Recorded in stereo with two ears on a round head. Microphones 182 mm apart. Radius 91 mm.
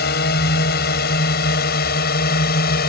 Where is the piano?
No piano in this recording.